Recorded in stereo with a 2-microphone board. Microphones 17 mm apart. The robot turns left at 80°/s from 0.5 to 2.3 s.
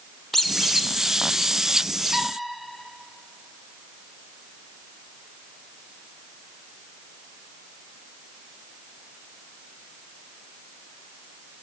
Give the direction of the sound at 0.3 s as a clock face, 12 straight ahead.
12 o'clock.